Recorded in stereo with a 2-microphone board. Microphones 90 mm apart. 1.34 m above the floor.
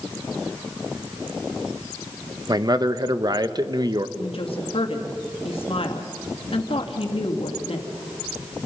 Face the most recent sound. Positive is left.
turn(degrees=80)